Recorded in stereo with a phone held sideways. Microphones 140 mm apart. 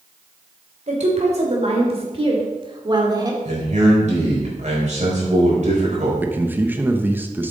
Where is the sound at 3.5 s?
55° right (ahead or behind), 4 m.